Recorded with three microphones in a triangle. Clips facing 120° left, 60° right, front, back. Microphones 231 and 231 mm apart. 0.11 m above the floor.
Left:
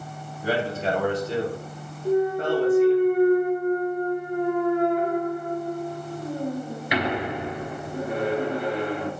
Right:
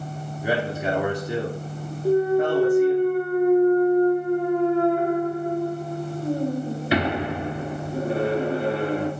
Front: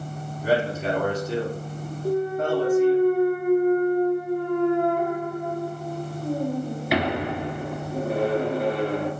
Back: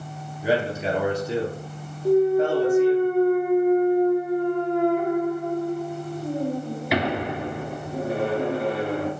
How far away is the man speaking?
About 1.2 m.